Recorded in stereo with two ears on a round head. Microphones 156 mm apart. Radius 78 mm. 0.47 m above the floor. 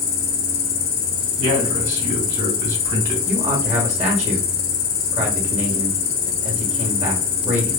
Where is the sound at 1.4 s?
45° right (ahead or behind), 2.5 m.